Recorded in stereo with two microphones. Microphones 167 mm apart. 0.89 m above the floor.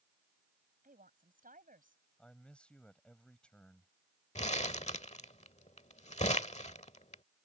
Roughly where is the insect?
I don't hear an insect.